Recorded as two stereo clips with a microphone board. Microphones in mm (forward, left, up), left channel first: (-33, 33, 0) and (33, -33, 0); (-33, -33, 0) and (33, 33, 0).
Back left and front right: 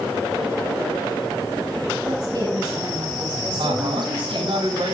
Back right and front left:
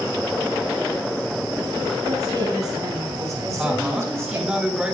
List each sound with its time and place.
2.0 s a woman speaking: straight ahead, 6 m; by 4.6 s 20° right, 5.5 m
3.6 s a woman speaking: 35° right, 5.5 m